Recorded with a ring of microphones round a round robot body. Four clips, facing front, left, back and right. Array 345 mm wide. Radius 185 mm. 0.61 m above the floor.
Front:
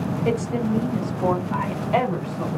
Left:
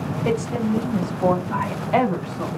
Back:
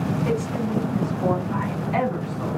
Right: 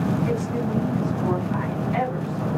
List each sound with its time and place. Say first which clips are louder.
0.2 s a woman speaking: left 3 dB, front 2 dB; 60° left, 4.5 m; by 2.5 s 55° left, 5.5 m